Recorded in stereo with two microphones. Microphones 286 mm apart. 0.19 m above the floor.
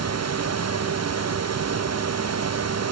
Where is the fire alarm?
No fire alarm in this recording.